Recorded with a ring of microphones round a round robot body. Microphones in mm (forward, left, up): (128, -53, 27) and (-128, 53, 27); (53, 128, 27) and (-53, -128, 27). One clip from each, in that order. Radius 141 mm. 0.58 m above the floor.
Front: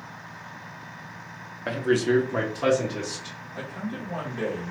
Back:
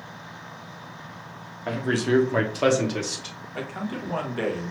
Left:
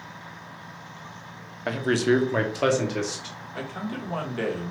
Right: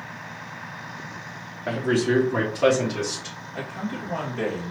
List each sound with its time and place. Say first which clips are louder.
1.7 s a man speaking: front 1 dB, even; 40° left, 0.9 m; by 3.4 s 145° left, 1.5 m
3.5 s a man speaking: back 3 dB, right 1 dB; 130° left, 1.4 m